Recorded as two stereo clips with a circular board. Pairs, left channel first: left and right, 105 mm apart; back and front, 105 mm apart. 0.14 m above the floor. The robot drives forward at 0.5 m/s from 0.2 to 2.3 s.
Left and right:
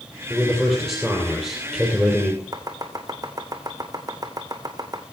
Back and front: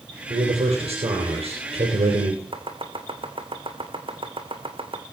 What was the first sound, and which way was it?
A man speaking, 5° left.